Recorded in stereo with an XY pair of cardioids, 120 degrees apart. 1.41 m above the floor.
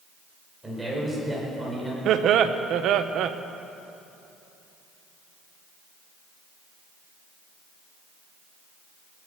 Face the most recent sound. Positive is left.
turn(degrees=-65)